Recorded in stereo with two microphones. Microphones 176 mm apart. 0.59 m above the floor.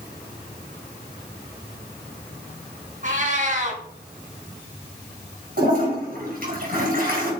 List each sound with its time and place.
3.0 s a cat meowing: 50° right (ahead or behind), 1.7 m
5.6 s a toilet flushing: 60° right (ahead or behind), 4 m